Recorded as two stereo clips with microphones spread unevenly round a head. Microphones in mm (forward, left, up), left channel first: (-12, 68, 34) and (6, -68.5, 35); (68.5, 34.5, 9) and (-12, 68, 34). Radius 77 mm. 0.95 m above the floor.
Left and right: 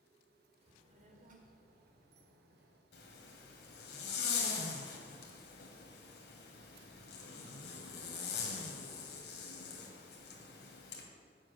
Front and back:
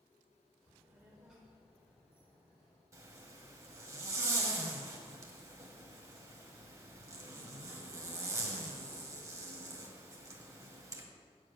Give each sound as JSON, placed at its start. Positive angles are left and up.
{"t": 0.6, "sound": "a child speaking", "azimuth_deg": -130, "distance_m": 1.8}
{"t": 2.9, "sound": "a zipper", "azimuth_deg": 110, "distance_m": 1.7}